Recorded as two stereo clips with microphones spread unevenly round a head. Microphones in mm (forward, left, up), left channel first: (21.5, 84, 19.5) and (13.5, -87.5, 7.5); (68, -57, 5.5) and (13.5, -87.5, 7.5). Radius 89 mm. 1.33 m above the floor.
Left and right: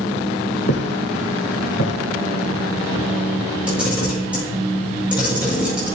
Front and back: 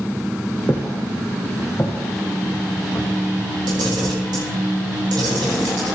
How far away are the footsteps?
About 2.5 m.